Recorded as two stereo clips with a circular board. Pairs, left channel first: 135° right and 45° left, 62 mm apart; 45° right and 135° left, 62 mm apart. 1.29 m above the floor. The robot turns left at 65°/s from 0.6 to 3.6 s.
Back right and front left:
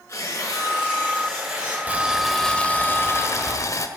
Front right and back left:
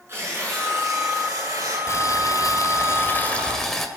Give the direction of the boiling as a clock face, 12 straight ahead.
1 o'clock.